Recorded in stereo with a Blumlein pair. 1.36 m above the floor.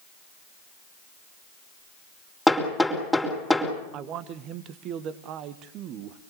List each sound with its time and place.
2.5 s hammering: straight ahead, 4.5 m
3.9 s a man speaking: 35° right, 1.5 m